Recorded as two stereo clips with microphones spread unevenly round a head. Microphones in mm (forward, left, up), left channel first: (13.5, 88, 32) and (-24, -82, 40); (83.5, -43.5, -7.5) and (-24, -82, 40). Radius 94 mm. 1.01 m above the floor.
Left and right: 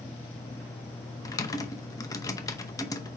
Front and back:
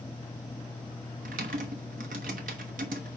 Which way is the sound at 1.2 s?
150° left.